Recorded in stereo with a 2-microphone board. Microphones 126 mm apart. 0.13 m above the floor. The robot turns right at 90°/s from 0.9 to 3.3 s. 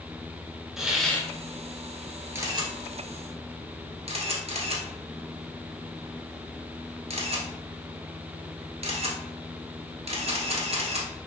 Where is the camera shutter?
20° right (ahead or behind), 1.3 m; by 11.1 s 55° right (ahead or behind), 1.3 m.